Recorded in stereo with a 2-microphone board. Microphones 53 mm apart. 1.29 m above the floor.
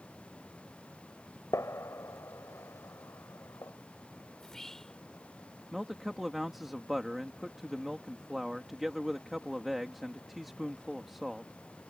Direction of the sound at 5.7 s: 5° right (ahead or behind).